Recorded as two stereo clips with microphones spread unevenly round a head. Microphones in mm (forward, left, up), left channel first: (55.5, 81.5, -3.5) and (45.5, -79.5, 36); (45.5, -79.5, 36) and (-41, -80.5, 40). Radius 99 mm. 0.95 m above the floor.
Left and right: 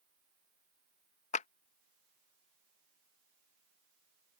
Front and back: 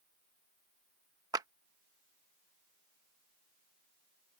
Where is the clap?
125° left.